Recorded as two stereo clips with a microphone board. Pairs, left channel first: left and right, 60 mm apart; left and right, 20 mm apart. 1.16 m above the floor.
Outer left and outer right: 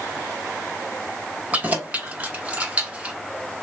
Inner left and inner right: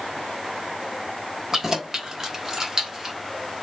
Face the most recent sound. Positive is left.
turn(degrees=-20)  # may be behind; listen again after turning